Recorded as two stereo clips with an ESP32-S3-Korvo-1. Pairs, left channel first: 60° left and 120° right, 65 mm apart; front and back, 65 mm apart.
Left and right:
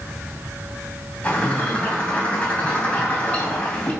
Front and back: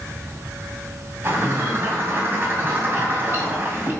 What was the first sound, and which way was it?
A bird, 130° left.